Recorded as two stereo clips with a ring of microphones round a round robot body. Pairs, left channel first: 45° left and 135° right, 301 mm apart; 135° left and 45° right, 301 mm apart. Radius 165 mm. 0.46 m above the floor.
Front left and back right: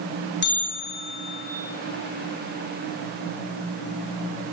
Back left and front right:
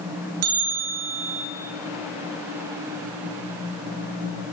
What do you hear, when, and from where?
0.4 s a bell: 10° right, 8 m